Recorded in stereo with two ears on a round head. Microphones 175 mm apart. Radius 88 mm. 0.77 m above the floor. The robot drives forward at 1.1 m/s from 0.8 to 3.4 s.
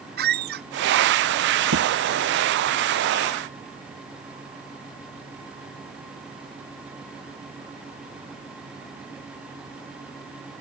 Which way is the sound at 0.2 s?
55° right (ahead or behind).